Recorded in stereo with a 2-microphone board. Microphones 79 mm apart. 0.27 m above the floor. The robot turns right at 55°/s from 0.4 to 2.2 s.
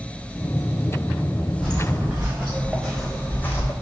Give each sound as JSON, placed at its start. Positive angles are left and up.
{"t": 1.6, "sound": "footsteps", "side_deg": 0, "distance_m": 2.0}